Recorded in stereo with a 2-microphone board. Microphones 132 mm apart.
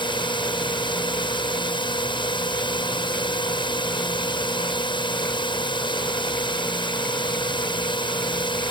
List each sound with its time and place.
0.0 s a drone: 35° left (ahead or behind)